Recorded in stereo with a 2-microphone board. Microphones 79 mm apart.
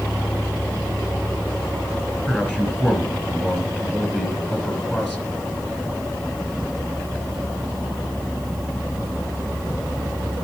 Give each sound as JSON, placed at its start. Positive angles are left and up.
{"t": 2.3, "sound": "a man speaking", "side_deg": 15, "distance_m": 2.5}